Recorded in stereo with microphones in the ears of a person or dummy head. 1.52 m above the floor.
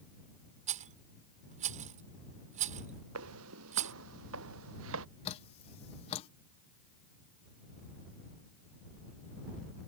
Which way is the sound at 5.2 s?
35° left (ahead or behind).